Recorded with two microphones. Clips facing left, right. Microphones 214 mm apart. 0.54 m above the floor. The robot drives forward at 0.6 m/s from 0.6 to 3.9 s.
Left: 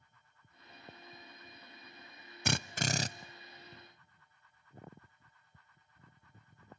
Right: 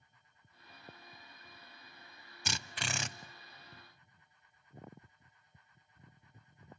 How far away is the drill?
About 0.5 m.